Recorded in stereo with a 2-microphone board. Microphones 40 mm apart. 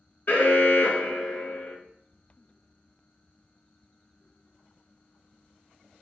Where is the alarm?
55° left (ahead or behind), 0.9 m.